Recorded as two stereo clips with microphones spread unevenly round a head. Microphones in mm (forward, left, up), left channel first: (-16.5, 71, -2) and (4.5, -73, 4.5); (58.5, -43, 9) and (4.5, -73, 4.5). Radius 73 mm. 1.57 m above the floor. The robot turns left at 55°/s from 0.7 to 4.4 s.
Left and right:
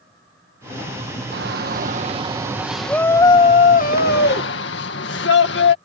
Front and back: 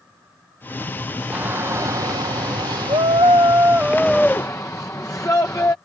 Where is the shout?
90° right; by 5.8 s 100° left.